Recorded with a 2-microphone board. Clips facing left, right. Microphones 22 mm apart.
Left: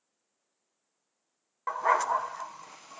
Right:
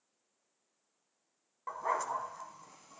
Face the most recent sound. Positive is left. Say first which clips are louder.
# left 8 dB
turn(degrees=45)  # may be behind; listen again after turning